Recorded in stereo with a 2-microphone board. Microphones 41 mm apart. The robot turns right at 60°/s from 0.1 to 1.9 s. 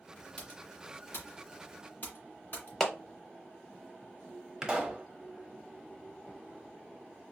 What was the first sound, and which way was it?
Typing on a keyboard, 35° left (ahead or behind).